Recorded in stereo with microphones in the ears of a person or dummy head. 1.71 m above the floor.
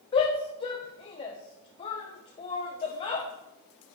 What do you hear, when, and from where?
0.1 s a shout: 30° left (ahead or behind), 0.7 m